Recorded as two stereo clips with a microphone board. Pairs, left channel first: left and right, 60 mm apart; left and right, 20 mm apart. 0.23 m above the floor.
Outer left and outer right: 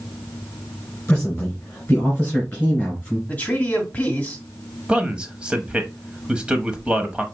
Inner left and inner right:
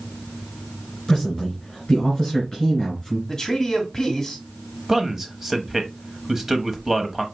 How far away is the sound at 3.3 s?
About 1.6 m.